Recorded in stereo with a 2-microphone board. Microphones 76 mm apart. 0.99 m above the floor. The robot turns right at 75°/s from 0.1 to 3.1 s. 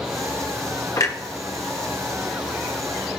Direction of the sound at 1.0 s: 50° left (ahead or behind).